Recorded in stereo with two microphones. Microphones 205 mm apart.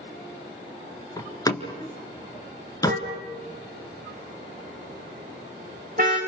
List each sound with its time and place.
1.2 s a door slam: 15° left (ahead or behind), 1.7 m
2.9 s a car horn: 40° right (ahead or behind), 5.5 m